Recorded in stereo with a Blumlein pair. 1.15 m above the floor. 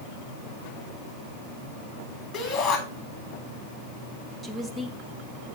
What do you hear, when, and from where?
2.3 s a shout: 25° left, 4 m
4.4 s a woman speaking: 10° right, 1.5 m